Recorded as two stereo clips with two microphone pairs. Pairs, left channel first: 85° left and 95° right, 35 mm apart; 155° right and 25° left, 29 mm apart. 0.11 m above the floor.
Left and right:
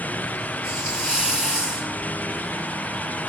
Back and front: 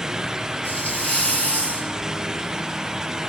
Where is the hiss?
160° right, 3 m.